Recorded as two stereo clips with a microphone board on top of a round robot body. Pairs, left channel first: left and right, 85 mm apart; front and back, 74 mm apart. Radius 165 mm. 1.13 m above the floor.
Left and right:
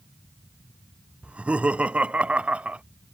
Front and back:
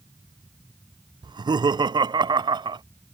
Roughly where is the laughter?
Behind.